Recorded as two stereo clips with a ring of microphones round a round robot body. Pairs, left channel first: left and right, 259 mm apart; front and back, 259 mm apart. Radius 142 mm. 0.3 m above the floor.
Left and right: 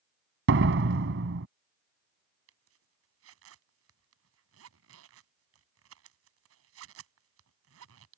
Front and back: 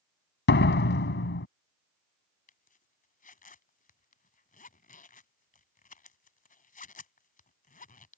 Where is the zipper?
55° right.